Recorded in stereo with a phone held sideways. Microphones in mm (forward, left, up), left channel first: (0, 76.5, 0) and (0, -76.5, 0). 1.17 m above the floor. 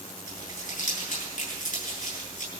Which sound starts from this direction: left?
Crumpling, at 0.3 s.